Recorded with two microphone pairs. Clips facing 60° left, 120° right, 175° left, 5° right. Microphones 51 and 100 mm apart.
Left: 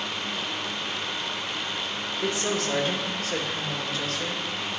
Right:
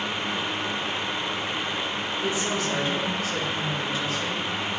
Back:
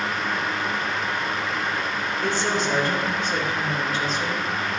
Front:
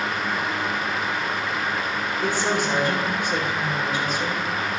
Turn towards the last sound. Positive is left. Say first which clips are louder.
# left 1 dB, front 1 dB
turn(degrees=75)